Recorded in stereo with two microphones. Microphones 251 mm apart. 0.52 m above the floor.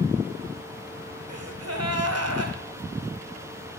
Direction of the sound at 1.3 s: 80° right.